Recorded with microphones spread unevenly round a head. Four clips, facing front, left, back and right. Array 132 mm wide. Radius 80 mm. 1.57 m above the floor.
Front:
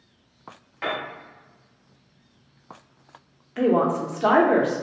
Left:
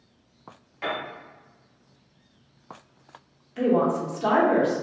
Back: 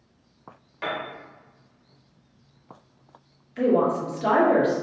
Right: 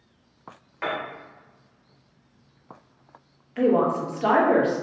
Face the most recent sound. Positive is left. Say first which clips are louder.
# right 1 dB, front 1 dB
turn(degrees=-25)